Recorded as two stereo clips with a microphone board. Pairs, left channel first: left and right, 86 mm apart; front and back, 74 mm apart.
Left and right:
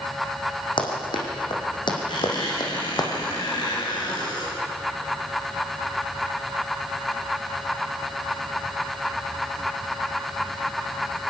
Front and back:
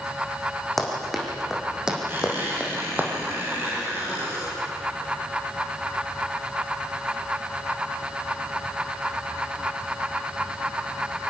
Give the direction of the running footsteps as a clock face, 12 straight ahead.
9 o'clock.